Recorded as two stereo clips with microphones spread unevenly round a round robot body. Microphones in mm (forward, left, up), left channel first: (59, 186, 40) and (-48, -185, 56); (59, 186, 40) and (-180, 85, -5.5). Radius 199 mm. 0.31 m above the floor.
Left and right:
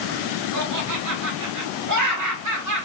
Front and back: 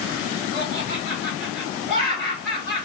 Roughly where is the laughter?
Right.